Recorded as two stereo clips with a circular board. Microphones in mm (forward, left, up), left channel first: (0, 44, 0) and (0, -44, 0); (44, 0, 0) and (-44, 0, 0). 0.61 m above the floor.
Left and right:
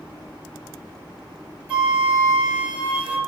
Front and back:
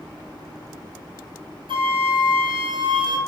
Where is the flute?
165° right, 2 m.